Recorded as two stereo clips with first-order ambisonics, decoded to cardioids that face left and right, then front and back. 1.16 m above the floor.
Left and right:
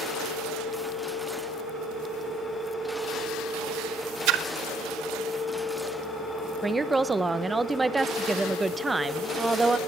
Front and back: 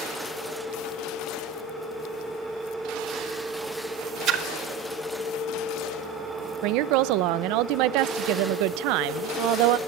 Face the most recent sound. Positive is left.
turn(degrees=-170)